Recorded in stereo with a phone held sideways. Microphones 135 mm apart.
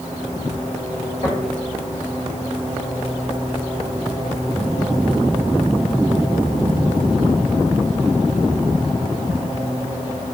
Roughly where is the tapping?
Left.